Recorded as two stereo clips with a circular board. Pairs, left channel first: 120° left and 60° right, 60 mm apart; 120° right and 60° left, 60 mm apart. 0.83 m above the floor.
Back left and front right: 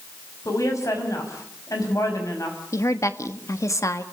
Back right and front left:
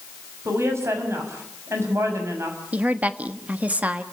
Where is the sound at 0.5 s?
95° left, 6 m.